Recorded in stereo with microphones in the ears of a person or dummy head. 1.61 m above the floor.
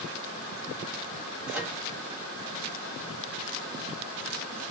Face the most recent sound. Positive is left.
turn(degrees=-10)  # may be behind; listen again after turning